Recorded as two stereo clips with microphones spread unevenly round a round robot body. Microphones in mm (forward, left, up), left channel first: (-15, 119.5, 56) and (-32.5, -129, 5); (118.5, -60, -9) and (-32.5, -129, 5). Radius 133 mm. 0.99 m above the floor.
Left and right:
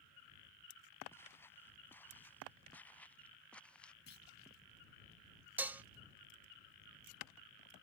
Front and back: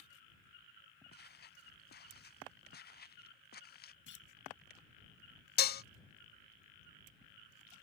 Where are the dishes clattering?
10° right.